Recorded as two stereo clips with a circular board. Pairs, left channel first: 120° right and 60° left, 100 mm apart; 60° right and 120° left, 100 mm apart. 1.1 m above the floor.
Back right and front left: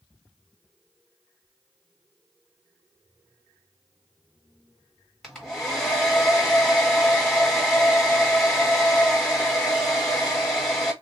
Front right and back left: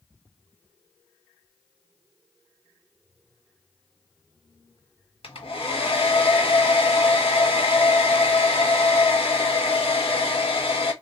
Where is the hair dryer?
35° right, 1.2 m.